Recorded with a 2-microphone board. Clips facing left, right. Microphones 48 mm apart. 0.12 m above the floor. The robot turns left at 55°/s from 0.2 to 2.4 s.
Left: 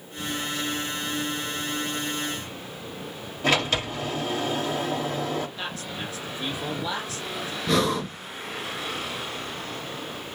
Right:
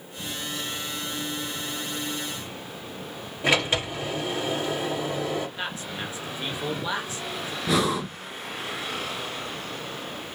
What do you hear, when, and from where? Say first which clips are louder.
3.4 s a sliding door: even; 15° right (ahead or behind), 2.5 m
5.6 s a man speaking: right 1 dB; 25° right (ahead or behind), 1.7 m
7.7 s breathing: left 1 dB; 5° right (ahead or behind), 0.7 m